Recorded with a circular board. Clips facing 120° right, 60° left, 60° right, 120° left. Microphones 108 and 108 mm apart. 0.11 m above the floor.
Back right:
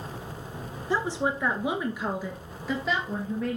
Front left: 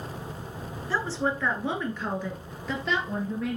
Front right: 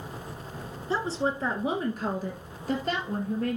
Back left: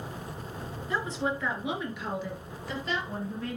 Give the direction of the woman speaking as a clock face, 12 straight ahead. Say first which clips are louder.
Back right 1 dB, front right 3 dB; 2 o'clock.